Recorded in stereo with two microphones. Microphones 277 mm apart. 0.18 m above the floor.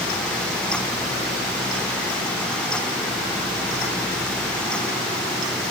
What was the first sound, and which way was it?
Only background noise.